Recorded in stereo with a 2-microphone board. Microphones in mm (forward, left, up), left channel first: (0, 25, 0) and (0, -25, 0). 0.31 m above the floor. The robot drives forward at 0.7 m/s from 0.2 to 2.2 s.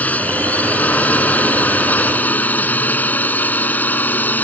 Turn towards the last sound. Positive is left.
turn(degrees=35)  # may be behind; listen again after turning